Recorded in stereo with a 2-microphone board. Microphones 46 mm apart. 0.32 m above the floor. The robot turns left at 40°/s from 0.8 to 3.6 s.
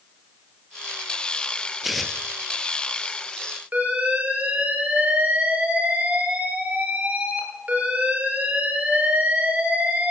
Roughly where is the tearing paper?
Centre.